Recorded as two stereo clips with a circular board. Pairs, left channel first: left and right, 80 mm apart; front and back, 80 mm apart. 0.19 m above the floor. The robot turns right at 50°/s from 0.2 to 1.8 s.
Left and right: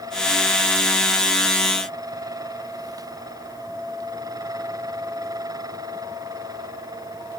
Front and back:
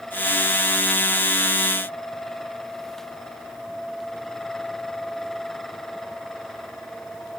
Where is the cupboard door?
No cupboard door in this recording.